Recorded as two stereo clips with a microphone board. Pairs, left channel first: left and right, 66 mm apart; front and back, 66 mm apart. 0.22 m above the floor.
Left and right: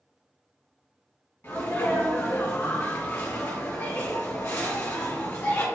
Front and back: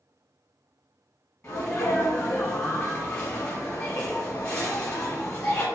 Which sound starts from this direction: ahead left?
A sneeze, at 1.4 s.